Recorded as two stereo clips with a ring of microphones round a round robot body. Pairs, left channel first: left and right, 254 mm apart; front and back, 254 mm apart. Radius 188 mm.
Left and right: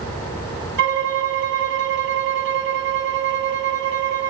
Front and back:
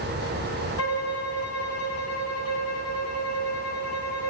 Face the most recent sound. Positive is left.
turn(degrees=-45)